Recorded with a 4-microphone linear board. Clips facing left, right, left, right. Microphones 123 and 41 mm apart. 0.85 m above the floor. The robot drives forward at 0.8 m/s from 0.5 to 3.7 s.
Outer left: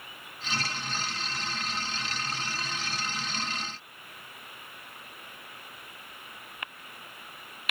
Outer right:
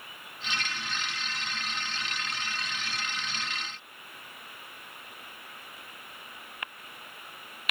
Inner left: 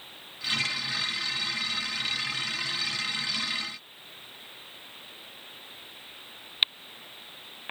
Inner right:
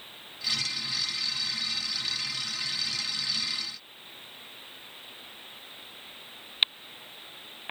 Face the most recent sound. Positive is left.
No sound to turn to.